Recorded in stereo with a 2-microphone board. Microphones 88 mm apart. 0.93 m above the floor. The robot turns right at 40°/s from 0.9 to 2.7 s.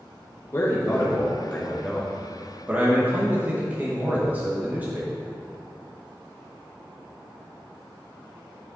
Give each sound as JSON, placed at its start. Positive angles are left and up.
{"t": 0.5, "sound": "a man speaking", "azimuth_deg": 135, "distance_m": 1.1}